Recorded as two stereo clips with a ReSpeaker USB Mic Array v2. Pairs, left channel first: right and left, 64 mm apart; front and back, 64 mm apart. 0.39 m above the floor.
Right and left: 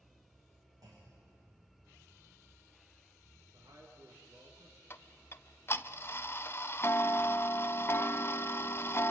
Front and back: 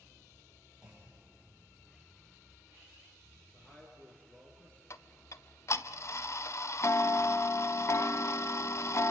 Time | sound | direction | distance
0.8 | a clunk | 100° left | 7 m
3.5 | a man speaking | 65° left | 5.5 m
4.9 | ticking | 40° right | 0.7 m